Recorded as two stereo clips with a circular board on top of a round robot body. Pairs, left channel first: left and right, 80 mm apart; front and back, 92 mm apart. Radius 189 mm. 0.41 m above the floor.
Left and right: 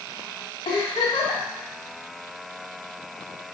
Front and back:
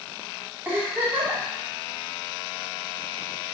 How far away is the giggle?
About 2.5 m.